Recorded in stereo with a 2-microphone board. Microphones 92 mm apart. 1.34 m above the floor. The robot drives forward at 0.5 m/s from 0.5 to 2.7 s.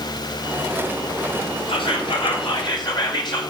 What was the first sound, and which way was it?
Whispering, 65° left (ahead or behind).